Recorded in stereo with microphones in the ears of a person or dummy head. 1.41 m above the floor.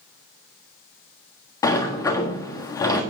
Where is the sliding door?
20° left (ahead or behind), 1.5 m.